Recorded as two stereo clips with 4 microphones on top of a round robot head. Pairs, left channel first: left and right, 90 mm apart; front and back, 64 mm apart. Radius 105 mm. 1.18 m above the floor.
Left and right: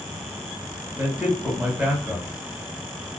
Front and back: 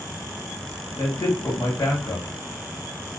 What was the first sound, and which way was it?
A man speaking, 15° right.